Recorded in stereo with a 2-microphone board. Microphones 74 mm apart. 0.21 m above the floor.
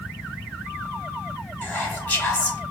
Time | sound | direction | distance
1.6 | whispering | 20° left (ahead or behind) | 1.1 m